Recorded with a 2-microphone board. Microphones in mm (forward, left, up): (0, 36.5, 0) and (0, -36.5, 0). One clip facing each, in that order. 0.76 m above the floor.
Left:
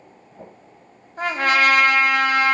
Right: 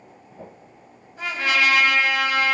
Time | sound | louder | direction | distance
1.2 | a trumpet | left 4 dB | 50° left (ahead or behind) | 1.1 m